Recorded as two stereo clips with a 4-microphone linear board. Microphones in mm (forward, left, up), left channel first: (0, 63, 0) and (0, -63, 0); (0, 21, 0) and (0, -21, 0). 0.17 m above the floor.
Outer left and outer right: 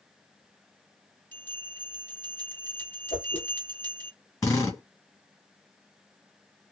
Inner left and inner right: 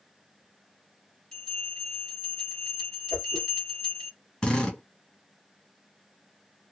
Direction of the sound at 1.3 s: 15° left (ahead or behind).